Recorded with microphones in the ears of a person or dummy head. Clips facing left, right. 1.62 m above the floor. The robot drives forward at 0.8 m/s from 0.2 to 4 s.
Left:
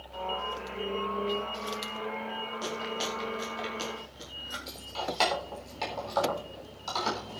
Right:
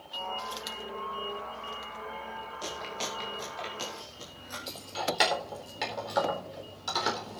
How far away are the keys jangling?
About 3.5 m.